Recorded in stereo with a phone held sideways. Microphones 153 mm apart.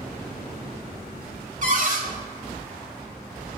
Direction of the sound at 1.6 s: 55° right (ahead or behind).